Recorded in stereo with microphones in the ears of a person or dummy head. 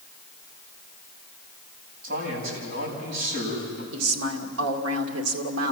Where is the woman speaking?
75° right (ahead or behind), 2 m.